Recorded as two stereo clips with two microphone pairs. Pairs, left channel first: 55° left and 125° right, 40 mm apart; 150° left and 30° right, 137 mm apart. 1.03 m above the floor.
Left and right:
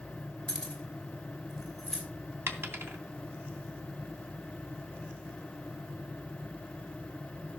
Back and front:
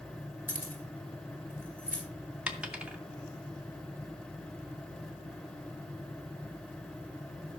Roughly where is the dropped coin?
Right.